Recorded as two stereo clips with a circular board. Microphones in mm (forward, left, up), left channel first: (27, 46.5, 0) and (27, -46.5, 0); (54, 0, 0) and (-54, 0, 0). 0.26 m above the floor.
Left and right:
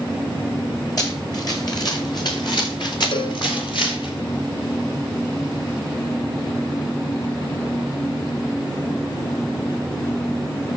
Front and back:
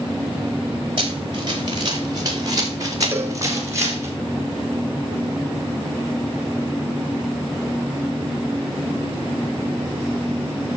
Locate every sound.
1.0 s running footsteps: 140° left, 4 m; by 4.1 s 115° left, 4.5 m
3.1 s a cowbell: 115° left, 1.7 m